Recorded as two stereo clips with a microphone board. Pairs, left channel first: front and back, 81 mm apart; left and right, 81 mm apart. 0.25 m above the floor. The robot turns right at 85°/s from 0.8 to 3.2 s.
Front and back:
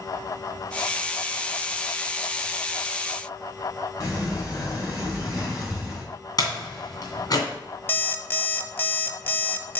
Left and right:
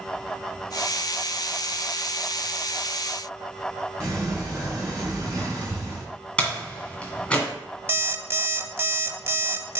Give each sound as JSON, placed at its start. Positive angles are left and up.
{"t": 4.0, "sound": "a sliding door", "azimuth_deg": -45, "distance_m": 3.5}
{"t": 6.4, "sound": "a door slam", "azimuth_deg": 15, "distance_m": 1.8}
{"t": 7.9, "sound": "an alarm clock", "azimuth_deg": -50, "distance_m": 0.6}